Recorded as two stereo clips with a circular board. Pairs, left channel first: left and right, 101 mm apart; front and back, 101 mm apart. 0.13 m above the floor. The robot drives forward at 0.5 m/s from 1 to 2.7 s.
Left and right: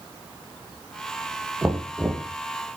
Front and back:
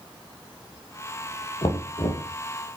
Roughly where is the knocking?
Ahead.